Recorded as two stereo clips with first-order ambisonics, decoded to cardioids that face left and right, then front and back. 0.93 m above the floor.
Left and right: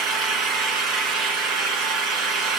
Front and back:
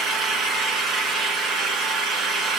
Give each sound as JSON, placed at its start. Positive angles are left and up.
{"t": 0.0, "sound": "an engine running", "azimuth_deg": -125, "distance_m": 3.5}